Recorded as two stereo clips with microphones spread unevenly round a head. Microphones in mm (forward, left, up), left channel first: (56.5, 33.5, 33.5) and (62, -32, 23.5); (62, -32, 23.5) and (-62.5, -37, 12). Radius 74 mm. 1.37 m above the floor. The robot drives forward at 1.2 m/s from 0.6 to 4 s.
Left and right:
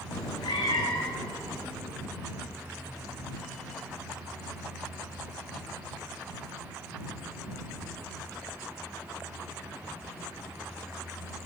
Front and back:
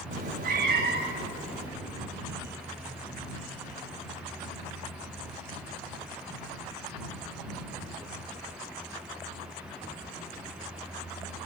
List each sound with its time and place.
0.1 s a cat meowing: 145° left, 1.3 m; by 1.7 s 165° left, 2.5 m